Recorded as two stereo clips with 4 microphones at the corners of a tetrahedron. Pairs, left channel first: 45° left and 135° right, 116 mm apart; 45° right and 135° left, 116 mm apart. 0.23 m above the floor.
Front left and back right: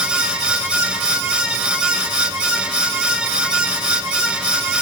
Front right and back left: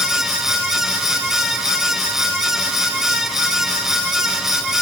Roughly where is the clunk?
I don't hear a clunk.